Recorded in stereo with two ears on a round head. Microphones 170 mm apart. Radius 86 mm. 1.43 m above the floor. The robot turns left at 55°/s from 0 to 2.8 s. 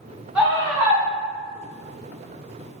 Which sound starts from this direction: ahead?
A scream, at 0.3 s.